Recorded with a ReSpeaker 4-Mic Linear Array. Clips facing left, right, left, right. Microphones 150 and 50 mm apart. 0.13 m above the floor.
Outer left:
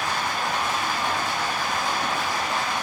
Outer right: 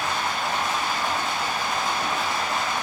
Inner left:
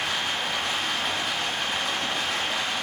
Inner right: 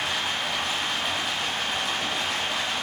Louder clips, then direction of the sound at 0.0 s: Even, even; 5° right (ahead or behind).